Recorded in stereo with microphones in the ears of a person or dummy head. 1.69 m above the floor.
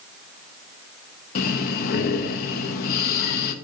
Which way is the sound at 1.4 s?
50° left (ahead or behind).